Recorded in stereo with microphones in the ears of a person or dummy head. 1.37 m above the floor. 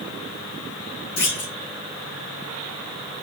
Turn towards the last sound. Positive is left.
turn(degrees=75)  # may be behind; listen again after turning